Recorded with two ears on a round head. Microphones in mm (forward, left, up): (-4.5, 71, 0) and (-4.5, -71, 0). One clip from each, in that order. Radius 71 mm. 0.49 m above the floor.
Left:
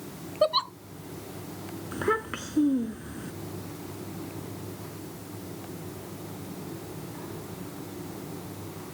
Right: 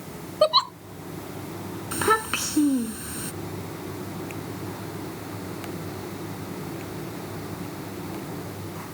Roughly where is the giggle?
Right.